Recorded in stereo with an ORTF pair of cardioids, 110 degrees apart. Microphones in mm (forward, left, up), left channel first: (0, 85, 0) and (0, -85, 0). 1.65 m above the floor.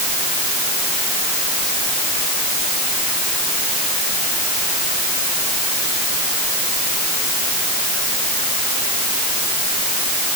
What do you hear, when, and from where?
Only background noise.